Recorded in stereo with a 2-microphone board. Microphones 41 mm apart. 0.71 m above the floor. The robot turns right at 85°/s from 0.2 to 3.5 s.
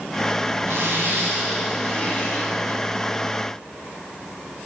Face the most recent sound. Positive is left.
turn(degrees=145)